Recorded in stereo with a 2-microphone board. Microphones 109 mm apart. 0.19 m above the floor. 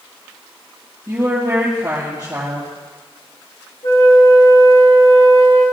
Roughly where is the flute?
Left.